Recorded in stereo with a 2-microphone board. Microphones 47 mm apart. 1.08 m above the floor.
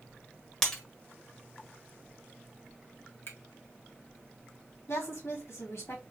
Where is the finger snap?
55° left (ahead or behind), 1.3 m.